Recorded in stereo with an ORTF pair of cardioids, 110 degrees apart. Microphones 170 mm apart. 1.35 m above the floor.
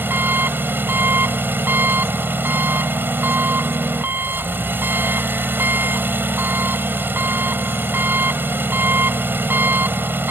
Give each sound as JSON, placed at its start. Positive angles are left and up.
{"t": 0.0, "sound": "an engine running", "azimuth_deg": -10}